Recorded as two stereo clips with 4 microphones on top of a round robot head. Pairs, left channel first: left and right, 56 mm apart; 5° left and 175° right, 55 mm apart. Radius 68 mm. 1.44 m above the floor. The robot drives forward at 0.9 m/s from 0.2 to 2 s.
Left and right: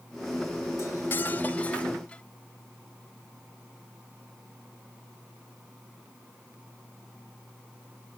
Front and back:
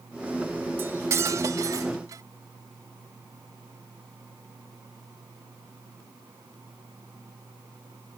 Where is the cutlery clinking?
140° left; by 2.2 s 165° left.